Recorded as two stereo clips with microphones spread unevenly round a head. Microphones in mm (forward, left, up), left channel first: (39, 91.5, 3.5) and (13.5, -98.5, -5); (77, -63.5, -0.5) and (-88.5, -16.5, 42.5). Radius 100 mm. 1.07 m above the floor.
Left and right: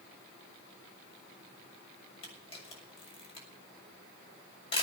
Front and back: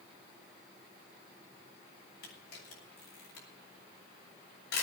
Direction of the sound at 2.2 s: 20° left.